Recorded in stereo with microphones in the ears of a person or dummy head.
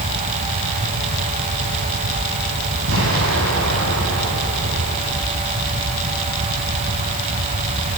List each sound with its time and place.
2.9 s an explosion: 80° right, 9 m